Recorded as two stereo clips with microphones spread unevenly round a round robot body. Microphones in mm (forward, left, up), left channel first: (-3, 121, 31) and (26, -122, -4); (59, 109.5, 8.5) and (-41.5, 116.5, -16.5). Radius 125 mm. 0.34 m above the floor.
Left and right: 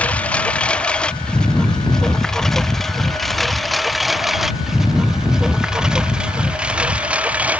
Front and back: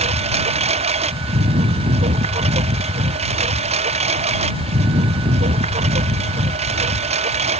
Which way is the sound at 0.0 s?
Straight behind.